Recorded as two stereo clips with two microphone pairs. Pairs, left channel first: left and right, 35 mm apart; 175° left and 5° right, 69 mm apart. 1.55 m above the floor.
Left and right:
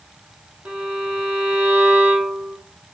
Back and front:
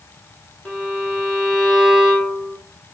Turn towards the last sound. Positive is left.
turn(degrees=-90)